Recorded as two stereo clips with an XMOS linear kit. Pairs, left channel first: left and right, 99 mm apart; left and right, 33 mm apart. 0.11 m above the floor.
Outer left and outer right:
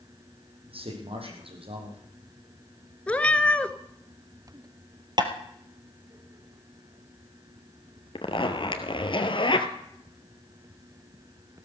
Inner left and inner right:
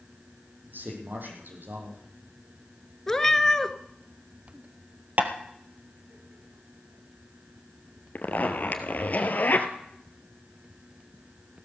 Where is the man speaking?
70° right (ahead or behind), 4.5 m.